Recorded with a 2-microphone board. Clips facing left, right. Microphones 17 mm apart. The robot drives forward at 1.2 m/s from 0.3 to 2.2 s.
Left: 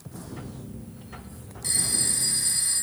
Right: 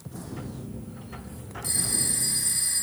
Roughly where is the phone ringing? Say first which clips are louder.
Left 2 dB; centre.